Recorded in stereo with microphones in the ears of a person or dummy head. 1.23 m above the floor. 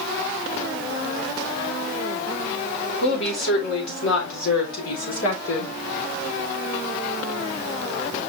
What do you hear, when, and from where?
3.0 s a woman speaking: 70° left (ahead or behind), 3.5 m; by 5.7 s 85° left, 3 m